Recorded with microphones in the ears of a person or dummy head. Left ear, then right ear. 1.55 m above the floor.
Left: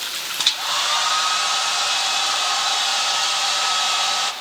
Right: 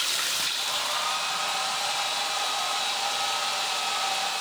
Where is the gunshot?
I don't hear a gunshot.